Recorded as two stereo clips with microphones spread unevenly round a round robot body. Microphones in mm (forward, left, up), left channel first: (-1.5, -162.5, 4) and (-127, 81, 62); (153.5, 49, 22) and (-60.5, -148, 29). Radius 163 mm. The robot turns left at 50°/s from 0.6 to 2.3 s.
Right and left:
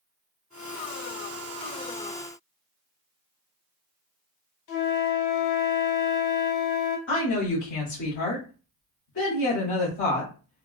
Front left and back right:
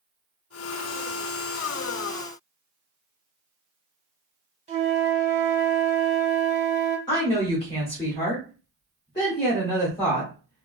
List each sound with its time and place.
4.7 s a flute: 70° right, 1.0 m
7.1 s a woman speaking: 30° right, 1.3 m